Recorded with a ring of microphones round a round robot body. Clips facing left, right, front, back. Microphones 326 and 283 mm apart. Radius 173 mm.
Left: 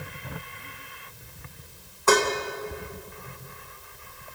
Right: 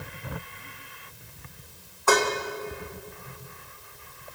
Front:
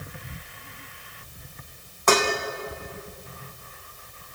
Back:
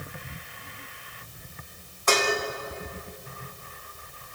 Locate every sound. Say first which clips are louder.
2.1 s dishes clattering: left 2 dB, front 3 dB; 25° left, 2.5 m